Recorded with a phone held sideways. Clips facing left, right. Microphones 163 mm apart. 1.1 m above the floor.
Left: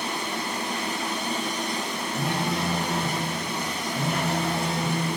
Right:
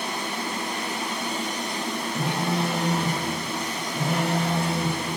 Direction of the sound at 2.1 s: Centre (ahead or behind).